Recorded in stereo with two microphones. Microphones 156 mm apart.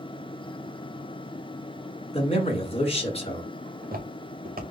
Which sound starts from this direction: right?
Footsteps, at 3.7 s.